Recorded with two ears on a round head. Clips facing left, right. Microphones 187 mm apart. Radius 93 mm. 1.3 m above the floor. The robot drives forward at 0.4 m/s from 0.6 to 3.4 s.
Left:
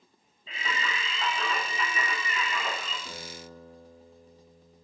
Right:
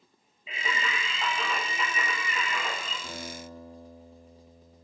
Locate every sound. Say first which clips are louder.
0.5 s singing: right 1 dB; 10° right (ahead or behind), 1.3 m; by 2.9 s 5° right (ahead or behind), 2 m
3.0 s a guitar: right 3 dB; 60° right (ahead or behind), 1.5 m